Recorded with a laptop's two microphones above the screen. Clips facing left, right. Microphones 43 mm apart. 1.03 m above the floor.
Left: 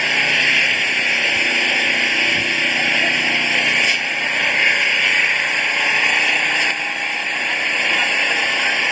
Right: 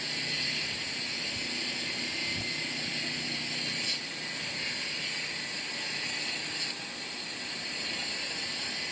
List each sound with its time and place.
0.0 s an engine running: 70° left (ahead or behind)